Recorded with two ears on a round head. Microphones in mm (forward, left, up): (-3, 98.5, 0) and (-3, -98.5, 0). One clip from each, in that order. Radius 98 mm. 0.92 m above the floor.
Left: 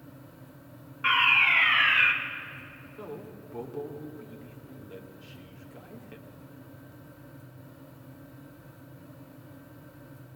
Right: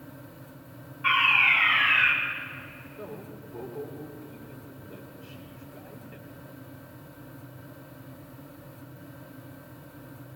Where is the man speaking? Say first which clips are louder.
Left 1 dB; 75° left (ahead or behind), 3 m.